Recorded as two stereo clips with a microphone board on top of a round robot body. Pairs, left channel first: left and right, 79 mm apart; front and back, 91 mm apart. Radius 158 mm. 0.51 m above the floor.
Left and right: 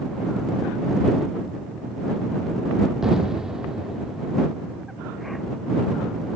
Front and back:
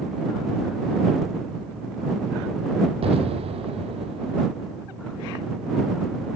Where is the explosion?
175° right.